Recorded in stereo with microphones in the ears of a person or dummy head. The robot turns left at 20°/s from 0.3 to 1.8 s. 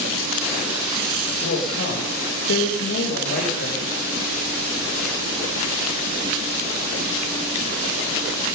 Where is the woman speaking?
70° left (ahead or behind), 2.5 m; by 3.8 s 65° left (ahead or behind), 2.5 m.